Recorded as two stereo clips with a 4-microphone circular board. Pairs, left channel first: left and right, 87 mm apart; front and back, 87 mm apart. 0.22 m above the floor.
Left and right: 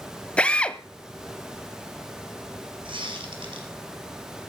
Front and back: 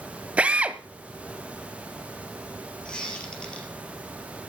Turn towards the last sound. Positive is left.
turn(degrees=-80)